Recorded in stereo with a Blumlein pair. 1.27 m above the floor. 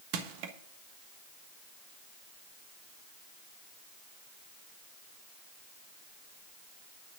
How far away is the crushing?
About 1.3 m.